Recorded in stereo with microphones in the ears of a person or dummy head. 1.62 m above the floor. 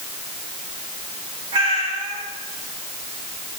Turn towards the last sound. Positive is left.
turn(degrees=-30)  # may be behind; listen again after turning